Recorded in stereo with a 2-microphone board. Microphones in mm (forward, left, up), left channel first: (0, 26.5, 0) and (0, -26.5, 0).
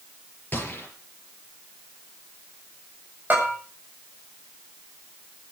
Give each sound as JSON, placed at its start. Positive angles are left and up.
{"t": 0.5, "sound": "a gunshot", "side_deg": 30, "distance_m": 5.5}
{"t": 3.3, "sound": "a bell", "side_deg": -30, "distance_m": 8.0}